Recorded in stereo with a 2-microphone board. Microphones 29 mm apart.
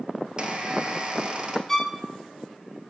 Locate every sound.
0.4 s a squeak: 30° right (ahead or behind), 1.1 m
1.7 s a violin: 5° left (ahead or behind), 0.7 m